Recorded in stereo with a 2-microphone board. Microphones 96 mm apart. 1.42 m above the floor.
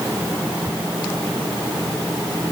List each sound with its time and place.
Only background noise.